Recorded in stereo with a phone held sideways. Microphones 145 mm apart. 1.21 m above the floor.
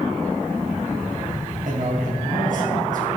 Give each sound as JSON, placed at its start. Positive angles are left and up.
{"t": 1.6, "sound": "a man speaking", "side_deg": -70, "distance_m": 1.9}